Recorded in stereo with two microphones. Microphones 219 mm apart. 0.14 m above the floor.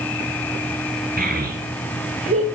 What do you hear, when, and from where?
1.2 s a child speaking: 45° right (ahead or behind), 2 m; by 2.5 s 30° right (ahead or behind), 1.4 m